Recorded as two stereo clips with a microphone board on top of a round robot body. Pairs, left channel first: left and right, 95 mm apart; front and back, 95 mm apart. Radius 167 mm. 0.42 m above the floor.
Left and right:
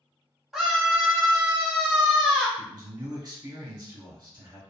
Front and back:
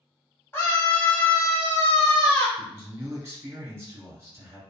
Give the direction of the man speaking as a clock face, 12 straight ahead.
4 o'clock.